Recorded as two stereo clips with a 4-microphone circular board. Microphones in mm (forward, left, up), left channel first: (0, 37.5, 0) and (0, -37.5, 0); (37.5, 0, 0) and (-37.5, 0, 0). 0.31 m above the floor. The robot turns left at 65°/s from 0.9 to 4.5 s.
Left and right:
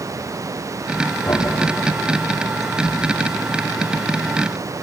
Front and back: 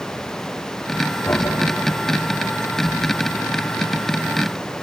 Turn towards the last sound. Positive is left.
turn(degrees=-155)